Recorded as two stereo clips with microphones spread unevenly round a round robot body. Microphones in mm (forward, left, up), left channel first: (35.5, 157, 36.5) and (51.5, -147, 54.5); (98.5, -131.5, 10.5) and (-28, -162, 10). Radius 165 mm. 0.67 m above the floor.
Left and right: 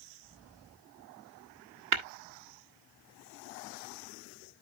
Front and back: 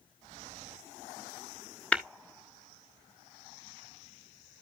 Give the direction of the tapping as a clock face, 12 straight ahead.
2 o'clock.